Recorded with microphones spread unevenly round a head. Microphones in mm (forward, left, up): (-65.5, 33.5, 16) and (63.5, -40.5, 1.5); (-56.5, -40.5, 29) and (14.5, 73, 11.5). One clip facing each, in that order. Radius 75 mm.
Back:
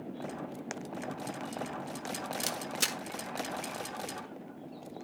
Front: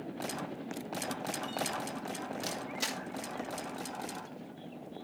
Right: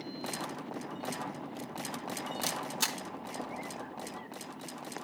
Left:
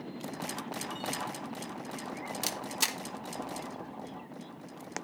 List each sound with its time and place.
2.4 s a camera shutter: 130° left, 1.3 m